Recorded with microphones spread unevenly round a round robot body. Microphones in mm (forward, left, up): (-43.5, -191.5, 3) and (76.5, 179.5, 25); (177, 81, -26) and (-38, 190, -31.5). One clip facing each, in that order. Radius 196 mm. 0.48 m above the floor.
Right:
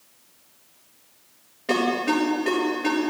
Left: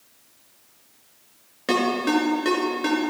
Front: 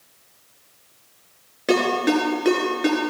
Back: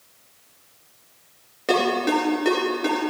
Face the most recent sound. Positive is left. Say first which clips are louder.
# left 1 dB, front 2 dB
turn(degrees=45)